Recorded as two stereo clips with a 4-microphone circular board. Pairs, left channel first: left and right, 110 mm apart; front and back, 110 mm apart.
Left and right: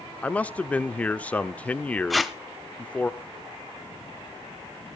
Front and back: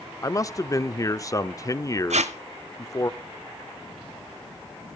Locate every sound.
0.2 s a man speaking: 25° left, 0.8 m
2.1 s tape being pulled: straight behind, 0.8 m